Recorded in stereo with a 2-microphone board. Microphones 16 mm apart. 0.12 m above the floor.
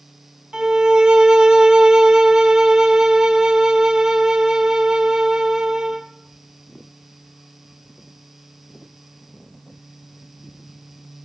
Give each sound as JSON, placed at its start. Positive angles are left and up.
{"t": 0.5, "sound": "a violin", "side_deg": -60, "distance_m": 1.4}